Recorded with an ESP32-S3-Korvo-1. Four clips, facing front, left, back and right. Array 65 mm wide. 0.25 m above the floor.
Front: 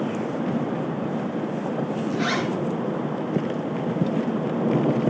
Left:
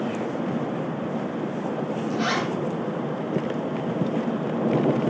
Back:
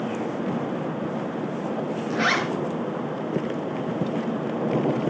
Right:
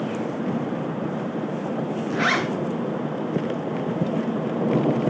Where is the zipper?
125° right, 3 m.